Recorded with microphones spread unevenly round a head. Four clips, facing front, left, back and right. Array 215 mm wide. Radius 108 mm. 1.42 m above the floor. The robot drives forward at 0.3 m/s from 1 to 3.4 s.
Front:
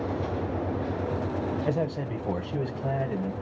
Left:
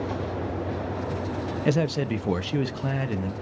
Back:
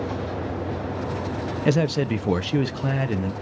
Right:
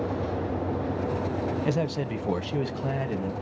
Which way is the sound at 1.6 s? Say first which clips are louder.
Left 3 dB, back 7 dB; 175° right.